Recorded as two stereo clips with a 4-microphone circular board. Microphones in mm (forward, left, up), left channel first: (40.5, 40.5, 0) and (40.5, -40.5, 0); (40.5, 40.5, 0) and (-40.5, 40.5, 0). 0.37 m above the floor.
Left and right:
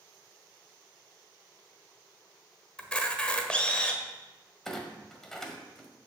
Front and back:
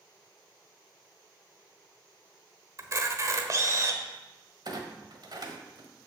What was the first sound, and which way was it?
A camera shutter, 160° left.